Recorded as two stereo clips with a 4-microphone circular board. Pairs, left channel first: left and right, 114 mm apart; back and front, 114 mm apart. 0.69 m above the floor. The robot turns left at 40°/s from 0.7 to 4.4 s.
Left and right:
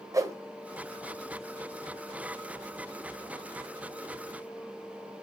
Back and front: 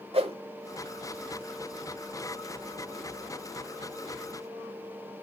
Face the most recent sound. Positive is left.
turn(degrees=180)